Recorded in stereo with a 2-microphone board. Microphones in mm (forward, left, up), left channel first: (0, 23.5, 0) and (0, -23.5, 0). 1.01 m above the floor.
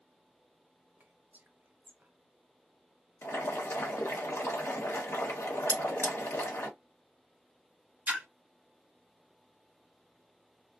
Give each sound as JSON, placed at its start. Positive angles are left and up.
{"t": 1.0, "sound": "whispering", "side_deg": -45, "distance_m": 0.7}
{"t": 3.2, "sound": "boiling", "side_deg": 70, "distance_m": 1.0}
{"t": 5.7, "sound": "cutlery clinking", "side_deg": 60, "distance_m": 1.8}
{"t": 8.1, "sound": "a splash", "side_deg": -30, "distance_m": 0.8}